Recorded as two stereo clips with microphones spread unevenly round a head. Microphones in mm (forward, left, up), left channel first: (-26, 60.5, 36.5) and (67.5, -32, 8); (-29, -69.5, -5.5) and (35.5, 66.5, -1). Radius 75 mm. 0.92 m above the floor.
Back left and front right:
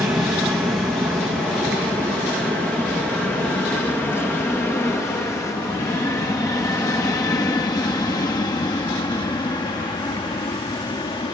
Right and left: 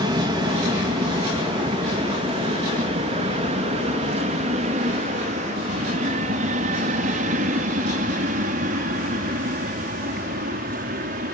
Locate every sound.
0.0 s an aircraft: 25° left; by 11.3 s 80° left